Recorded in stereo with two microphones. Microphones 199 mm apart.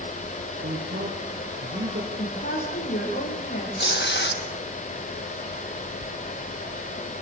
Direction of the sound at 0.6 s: 55° right (ahead or behind).